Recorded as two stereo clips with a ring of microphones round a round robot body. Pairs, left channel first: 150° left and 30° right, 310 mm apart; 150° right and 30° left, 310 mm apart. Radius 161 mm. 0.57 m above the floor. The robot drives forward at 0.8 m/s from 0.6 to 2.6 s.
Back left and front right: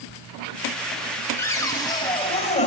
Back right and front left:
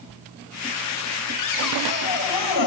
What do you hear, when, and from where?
1.4 s a cupboard door: 130° right, 3 m; by 2.7 s 140° right, 4 m